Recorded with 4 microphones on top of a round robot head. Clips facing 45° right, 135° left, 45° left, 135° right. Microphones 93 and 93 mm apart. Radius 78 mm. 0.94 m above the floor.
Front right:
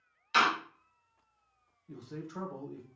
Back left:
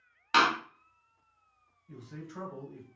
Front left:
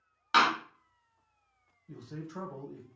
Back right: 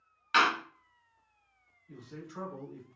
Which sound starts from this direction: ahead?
A man speaking, at 1.9 s.